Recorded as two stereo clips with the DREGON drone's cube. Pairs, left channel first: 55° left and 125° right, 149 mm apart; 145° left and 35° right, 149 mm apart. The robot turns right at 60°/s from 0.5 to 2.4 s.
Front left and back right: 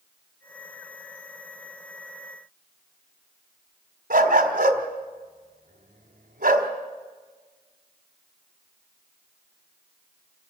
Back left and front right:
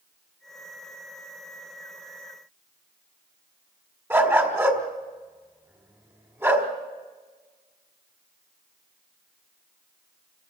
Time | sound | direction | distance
4.1 | a dog barking | 110° right | 1.7 m